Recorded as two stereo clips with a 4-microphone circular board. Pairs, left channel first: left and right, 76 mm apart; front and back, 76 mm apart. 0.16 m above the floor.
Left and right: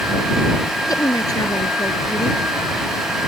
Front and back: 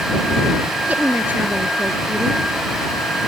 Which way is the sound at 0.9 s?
115° left.